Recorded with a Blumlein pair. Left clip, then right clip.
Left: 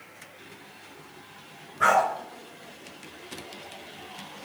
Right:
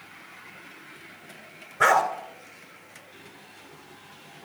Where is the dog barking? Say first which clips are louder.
Right 1 dB; 60° right, 3 m.